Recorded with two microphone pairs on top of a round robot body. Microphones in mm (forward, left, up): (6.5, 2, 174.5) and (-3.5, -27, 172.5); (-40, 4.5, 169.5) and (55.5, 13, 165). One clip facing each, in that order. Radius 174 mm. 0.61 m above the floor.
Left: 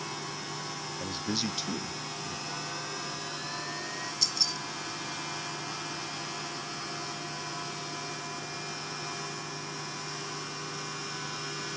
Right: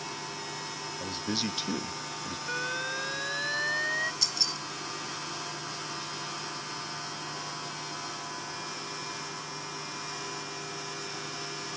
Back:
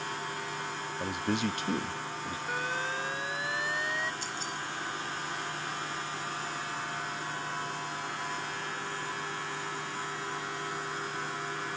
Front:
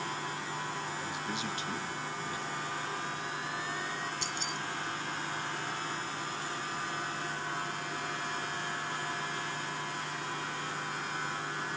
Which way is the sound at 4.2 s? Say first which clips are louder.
Even, even; 20° right.